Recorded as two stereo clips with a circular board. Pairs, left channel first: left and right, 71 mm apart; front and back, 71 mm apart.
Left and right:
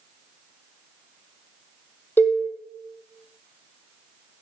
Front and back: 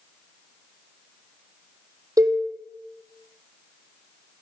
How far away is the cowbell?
About 2 m.